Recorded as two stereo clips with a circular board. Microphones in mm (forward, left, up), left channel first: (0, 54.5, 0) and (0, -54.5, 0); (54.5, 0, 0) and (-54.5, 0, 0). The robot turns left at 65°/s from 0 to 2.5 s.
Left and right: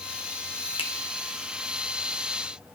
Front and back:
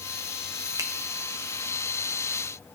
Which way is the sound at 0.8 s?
120° left.